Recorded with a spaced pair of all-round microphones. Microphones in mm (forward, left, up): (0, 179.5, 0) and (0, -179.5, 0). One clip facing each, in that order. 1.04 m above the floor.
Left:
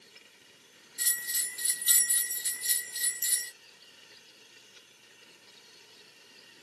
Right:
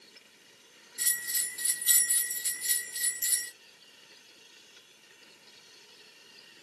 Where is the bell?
35° right (ahead or behind), 2 m.